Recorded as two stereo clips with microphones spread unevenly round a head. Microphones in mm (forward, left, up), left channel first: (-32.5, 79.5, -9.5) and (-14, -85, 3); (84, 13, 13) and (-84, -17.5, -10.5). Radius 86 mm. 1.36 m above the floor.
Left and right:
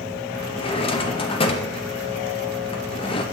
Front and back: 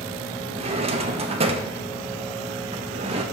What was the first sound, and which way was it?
A drawer, 140° left.